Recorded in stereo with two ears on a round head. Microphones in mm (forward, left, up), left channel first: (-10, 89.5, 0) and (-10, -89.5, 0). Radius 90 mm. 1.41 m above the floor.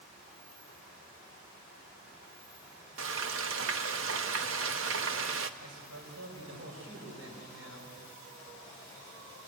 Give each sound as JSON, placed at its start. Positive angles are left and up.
{"t": 3.0, "sound": "frying", "side_deg": -65, "distance_m": 1.0}
{"t": 5.6, "sound": "a man speaking", "side_deg": -75, "distance_m": 6.0}